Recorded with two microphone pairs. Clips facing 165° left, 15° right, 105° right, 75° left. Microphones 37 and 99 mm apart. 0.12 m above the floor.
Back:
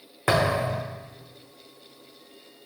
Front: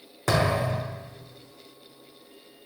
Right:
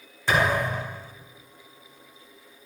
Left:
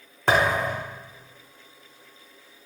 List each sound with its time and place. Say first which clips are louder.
0.3 s a thud: back 1 dB, left 1 dB; 110° left, 3.5 m